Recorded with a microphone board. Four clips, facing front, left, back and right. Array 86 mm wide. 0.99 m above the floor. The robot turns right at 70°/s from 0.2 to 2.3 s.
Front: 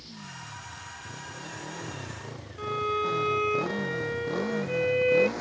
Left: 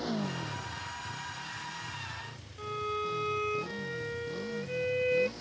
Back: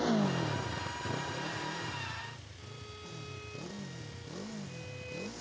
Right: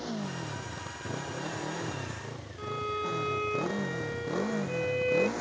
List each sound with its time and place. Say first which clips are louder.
0.0 s a motorcycle: left 2 dB, back 14 dB; 175° left; by 5.4 s 45° right
2.6 s a violin: right 1 dB, front 26 dB; straight ahead